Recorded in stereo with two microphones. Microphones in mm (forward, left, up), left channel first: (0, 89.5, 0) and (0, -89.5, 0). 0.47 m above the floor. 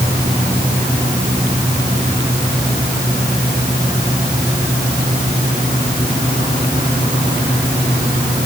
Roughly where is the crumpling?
I don't hear crumpling.